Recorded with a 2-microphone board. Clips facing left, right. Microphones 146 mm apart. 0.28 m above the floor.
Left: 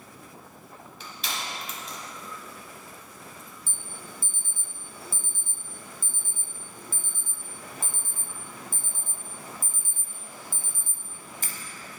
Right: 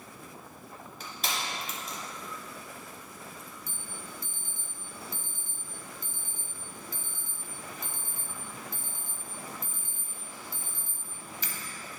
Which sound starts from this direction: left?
An alarm, at 3.7 s.